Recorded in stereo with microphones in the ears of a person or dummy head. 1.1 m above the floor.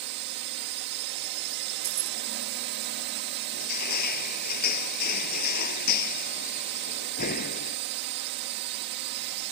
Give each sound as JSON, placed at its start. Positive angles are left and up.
{"t": 0.0, "sound": "a drone", "side_deg": -60}
{"t": 1.8, "sound": "keys jangling", "side_deg": -30}
{"t": 3.5, "sound": "crushing", "side_deg": 50}